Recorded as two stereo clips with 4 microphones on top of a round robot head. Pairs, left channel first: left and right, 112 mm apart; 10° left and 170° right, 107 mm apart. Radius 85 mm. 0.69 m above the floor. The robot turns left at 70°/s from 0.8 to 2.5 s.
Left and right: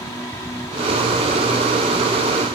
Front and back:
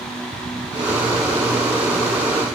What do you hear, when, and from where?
Only background noise.